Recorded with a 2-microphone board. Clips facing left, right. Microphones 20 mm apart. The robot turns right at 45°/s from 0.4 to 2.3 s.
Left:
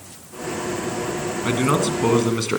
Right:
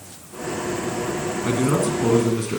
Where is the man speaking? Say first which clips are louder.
Left 1 dB; 40° left, 1.8 m; by 2.6 s 80° left, 1.8 m.